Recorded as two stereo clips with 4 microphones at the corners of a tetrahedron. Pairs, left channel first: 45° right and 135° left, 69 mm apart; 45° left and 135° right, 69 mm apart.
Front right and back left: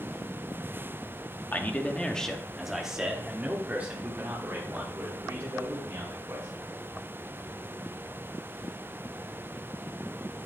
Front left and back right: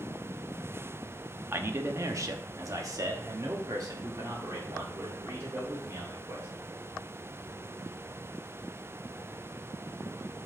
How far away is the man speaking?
About 0.9 m.